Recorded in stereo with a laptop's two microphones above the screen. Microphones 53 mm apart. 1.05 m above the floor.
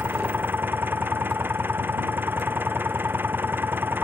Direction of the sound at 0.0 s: 40° right (ahead or behind).